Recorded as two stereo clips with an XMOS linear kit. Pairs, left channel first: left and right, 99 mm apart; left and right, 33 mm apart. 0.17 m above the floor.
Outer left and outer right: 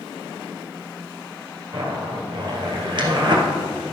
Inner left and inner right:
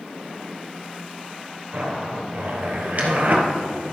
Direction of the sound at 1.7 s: 50° right (ahead or behind).